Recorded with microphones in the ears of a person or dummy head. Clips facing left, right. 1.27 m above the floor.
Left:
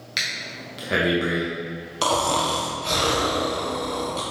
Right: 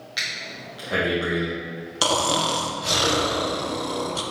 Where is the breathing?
25° left (ahead or behind), 1.4 m.